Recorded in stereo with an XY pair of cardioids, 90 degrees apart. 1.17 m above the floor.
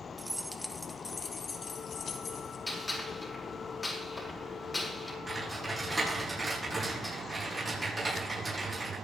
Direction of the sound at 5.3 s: 20° right.